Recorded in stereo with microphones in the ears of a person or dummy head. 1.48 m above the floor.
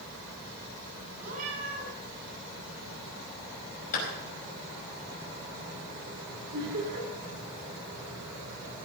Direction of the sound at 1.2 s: 45° right (ahead or behind).